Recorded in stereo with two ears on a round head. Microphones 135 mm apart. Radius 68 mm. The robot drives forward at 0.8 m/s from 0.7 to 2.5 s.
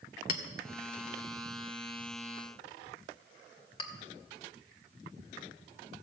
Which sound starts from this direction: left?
A clink, at 0.3 s.